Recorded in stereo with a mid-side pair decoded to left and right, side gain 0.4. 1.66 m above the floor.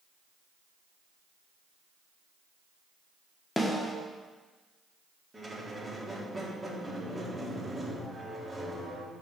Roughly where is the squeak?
Ahead.